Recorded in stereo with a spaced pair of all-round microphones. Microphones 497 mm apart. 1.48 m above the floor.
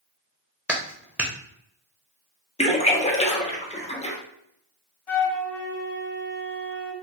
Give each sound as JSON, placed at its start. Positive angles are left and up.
{"t": 0.7, "sound": "a clap", "side_deg": -5, "distance_m": 0.6}
{"t": 2.6, "sound": "a splash", "side_deg": 15, "distance_m": 0.6}
{"t": 5.1, "sound": "a flute", "side_deg": 75, "distance_m": 1.2}